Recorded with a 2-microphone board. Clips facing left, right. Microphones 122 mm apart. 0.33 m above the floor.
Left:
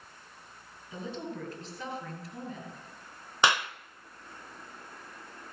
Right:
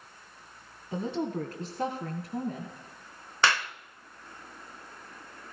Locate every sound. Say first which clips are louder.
0.9 s a woman speaking: right 7 dB; 60° right (ahead or behind), 2 m; by 2.7 s 70° right (ahead or behind), 3 m
3.4 s a clap: left 1 dB; 15° left (ahead or behind), 0.7 m